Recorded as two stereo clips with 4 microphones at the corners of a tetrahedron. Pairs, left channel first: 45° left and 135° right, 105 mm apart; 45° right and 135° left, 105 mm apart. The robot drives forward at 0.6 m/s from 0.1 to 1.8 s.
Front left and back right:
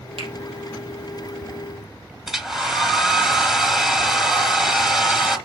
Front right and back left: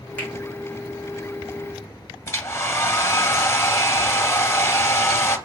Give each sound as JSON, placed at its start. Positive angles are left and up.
{"t": 0.2, "sound": "a finger snap", "azimuth_deg": -120, "distance_m": 4.0}
{"t": 2.3, "sound": "a hair dryer", "azimuth_deg": -50, "distance_m": 1.3}